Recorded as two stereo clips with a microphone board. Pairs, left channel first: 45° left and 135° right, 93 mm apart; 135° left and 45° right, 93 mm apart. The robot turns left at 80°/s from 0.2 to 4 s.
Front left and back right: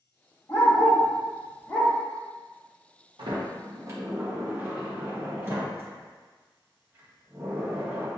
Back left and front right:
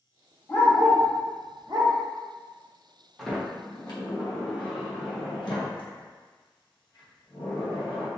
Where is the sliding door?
130° right, 1.1 m; by 8.1 s 165° left, 1.1 m.